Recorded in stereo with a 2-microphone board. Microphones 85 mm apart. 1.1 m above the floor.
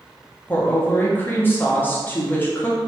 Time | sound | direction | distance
0.5 | a woman speaking | 25° left (ahead or behind) | 0.7 m